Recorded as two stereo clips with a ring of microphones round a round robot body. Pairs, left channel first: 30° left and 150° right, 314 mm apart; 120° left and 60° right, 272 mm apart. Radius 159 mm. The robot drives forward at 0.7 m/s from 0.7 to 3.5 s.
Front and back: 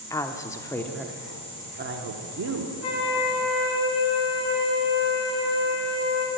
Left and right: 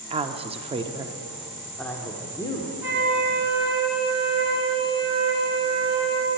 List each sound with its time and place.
0.1 s a woman speaking: 35° right, 0.9 m; by 2.7 s 170° right, 1.4 m
2.8 s a flute: 25° left, 4.5 m